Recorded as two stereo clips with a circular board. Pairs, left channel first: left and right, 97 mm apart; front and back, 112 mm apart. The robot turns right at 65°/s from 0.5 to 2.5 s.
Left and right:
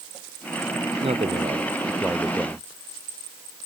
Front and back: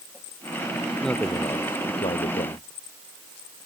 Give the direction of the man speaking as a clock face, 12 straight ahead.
3 o'clock.